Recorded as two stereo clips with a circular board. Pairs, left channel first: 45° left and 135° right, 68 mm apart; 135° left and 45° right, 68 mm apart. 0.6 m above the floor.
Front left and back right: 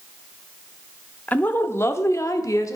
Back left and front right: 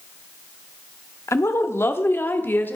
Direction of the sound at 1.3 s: 105° left.